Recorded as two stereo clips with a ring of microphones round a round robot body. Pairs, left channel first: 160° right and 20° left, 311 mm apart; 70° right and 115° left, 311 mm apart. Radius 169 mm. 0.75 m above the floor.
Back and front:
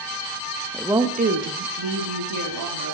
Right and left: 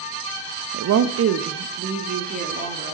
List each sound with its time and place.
0.7 s a woman speaking: 120° left, 0.7 m; by 2.9 s 45° left, 2.0 m